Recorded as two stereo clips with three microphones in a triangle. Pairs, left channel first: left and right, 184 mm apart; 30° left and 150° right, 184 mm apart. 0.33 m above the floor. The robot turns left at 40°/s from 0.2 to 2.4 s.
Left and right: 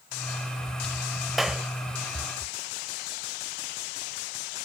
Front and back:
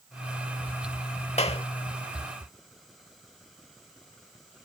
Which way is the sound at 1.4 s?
Straight ahead.